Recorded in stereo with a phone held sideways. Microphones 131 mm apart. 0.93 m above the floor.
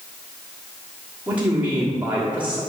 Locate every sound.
1.3 s a man speaking: 10° right (ahead or behind), 1.7 m